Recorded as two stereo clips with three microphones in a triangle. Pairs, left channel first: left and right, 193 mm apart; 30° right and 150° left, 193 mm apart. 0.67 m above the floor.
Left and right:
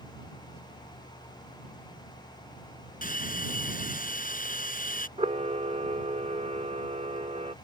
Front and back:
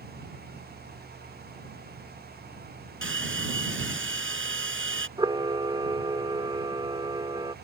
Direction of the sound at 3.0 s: 135° left.